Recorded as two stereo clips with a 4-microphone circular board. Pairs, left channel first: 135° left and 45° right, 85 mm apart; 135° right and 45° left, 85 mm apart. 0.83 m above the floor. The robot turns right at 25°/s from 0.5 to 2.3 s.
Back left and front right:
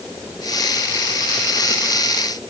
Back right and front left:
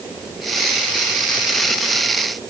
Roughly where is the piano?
No piano in this recording.